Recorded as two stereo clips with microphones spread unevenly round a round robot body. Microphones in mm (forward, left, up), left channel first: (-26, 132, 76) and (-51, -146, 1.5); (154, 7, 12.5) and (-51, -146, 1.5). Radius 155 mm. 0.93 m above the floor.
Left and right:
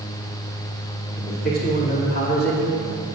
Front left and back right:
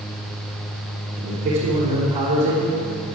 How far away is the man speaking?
About 3 m.